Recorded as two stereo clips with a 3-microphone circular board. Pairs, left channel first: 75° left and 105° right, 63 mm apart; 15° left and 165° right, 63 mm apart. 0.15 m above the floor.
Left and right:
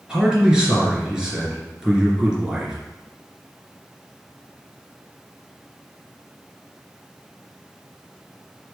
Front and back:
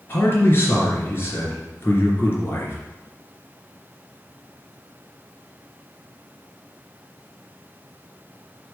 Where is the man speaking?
30° right, 2.5 m.